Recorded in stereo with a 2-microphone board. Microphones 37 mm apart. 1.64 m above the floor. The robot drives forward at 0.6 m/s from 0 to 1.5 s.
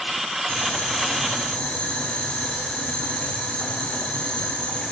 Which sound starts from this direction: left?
Boiling, at 0.5 s.